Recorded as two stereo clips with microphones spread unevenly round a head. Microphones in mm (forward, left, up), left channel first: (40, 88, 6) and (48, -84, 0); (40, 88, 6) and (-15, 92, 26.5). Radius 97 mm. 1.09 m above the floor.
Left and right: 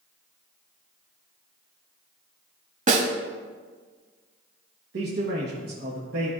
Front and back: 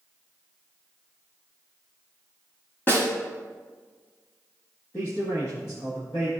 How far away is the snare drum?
About 1.1 m.